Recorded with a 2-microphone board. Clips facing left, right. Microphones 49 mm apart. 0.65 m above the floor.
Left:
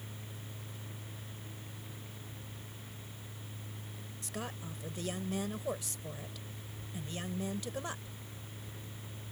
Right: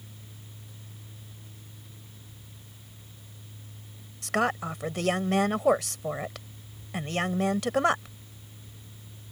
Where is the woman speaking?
70° right (ahead or behind).